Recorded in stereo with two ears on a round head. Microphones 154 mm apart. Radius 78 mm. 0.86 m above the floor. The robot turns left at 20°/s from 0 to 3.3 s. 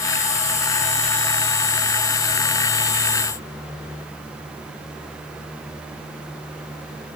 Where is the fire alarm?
No fire alarm in this recording.